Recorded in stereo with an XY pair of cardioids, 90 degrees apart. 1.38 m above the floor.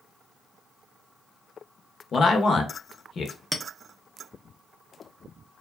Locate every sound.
2.1 s a man speaking: 50° left, 0.8 m
3.5 s a clink: 5° right, 0.7 m